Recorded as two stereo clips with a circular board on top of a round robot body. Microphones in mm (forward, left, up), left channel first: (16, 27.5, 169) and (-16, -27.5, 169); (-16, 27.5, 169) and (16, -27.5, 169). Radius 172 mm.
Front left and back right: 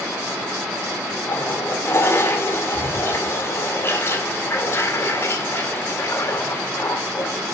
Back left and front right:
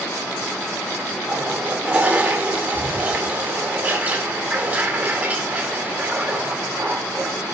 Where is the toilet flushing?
5° left, 3.5 m.